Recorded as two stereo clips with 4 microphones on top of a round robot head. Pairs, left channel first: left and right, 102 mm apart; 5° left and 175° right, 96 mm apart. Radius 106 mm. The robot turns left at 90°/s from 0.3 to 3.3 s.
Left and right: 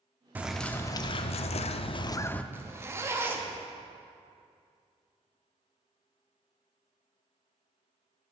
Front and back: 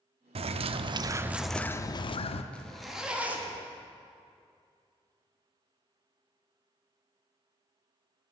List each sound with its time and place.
0.3 s a bird: 165° right, 0.5 m; by 2.4 s 10° left, 0.5 m
2.5 s a zipper: 55° right, 1.2 m; by 3.6 s 125° right, 1.2 m